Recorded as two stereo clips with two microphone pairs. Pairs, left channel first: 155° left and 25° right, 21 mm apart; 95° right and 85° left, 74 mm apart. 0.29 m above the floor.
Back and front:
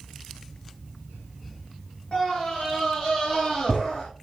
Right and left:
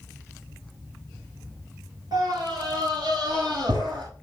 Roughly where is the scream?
Left.